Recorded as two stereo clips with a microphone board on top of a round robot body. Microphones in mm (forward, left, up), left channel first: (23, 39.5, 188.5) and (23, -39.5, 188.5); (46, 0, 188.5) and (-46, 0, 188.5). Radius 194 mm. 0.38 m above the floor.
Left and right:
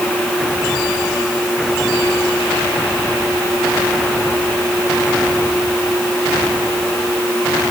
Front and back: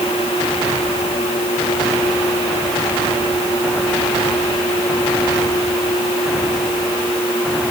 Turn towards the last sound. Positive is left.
No sound to turn to.